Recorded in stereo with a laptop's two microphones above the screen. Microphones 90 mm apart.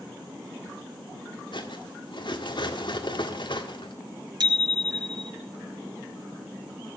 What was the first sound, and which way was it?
Cutlery clinking, 65° left (ahead or behind).